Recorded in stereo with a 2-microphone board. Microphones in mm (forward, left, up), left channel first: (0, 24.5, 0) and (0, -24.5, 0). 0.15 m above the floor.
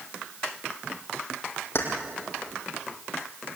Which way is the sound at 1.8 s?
55° left (ahead or behind).